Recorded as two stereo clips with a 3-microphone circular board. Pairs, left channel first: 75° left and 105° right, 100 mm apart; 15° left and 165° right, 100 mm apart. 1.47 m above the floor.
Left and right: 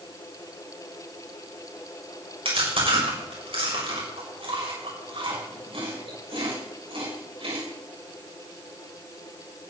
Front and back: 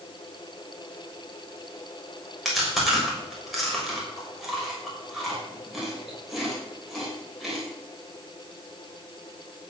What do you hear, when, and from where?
2.5 s chewing: 75° right, 6 m